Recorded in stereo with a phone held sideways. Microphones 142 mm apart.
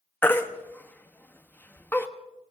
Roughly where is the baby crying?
Centre.